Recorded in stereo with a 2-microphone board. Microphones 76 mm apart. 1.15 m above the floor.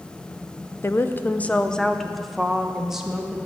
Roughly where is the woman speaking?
Left.